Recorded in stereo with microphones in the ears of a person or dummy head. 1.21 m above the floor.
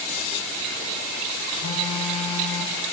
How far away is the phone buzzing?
About 2.5 m.